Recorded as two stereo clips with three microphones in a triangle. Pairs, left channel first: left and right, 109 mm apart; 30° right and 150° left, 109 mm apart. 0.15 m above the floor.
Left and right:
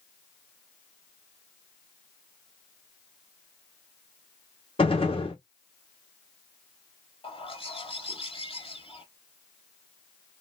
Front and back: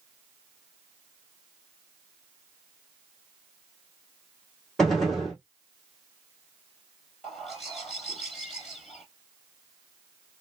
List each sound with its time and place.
4.8 s a gunshot: 60° left, 2 m
7.2 s a bird: 60° left, 3 m